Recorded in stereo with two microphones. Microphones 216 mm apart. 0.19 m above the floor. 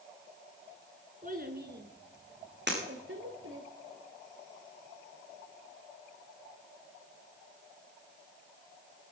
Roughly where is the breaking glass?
Right.